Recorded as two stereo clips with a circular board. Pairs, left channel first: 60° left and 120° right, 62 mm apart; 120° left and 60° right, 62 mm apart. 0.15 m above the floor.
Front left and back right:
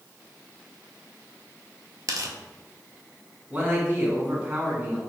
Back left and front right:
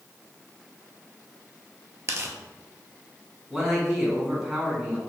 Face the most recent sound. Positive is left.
turn(degrees=-130)